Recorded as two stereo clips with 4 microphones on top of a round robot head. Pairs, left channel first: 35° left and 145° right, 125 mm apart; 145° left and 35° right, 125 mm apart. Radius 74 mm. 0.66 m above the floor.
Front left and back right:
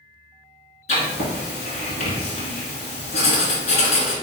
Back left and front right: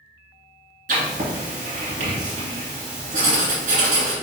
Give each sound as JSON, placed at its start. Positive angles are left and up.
{"t": 0.9, "sound": "writing", "azimuth_deg": -5, "distance_m": 1.6}